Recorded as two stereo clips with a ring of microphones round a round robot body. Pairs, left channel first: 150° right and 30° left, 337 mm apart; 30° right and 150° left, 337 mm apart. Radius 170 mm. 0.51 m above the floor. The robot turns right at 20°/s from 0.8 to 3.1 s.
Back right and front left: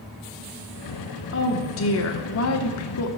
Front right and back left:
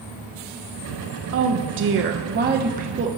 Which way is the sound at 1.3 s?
175° left.